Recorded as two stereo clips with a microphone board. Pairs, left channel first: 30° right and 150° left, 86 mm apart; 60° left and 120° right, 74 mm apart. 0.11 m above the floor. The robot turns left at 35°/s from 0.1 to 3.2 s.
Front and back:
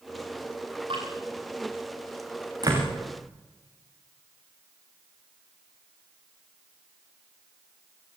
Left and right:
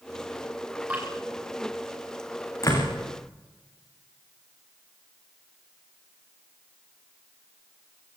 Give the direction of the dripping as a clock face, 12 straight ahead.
6 o'clock.